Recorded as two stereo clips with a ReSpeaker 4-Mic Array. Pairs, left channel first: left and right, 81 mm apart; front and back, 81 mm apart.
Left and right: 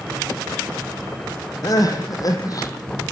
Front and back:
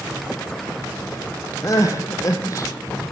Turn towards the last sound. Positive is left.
turn(degrees=50)